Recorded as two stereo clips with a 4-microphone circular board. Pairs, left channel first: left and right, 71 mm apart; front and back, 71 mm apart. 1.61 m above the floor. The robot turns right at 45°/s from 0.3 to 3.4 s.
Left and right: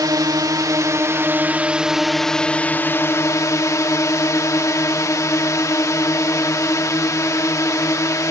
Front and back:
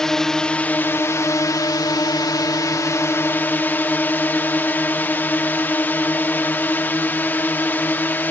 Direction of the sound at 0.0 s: 80° right.